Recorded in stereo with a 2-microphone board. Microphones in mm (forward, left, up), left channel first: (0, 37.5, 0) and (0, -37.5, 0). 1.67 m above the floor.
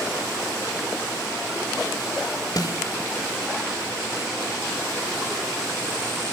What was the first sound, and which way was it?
A snare drum, 55° left (ahead or behind).